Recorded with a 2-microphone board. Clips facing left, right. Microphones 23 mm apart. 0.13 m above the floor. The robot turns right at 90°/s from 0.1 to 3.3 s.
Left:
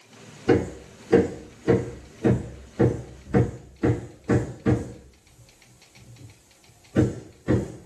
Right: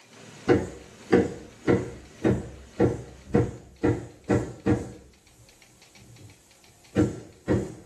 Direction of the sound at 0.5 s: 10° right (ahead or behind).